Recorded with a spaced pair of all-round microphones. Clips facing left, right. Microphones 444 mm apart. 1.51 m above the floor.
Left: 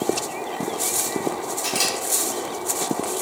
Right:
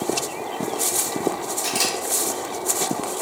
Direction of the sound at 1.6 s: 10° right (ahead or behind).